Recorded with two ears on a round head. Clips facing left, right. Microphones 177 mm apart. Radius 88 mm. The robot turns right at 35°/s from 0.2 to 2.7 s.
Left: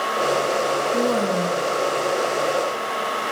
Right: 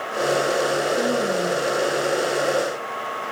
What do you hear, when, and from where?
0.9 s a woman speaking: 70° left (ahead or behind), 6.5 m; by 1.7 s 85° left, 6.5 m